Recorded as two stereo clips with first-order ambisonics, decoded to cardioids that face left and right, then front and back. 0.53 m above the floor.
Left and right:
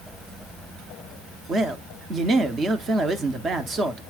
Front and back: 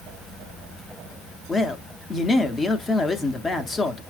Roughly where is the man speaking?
Ahead right.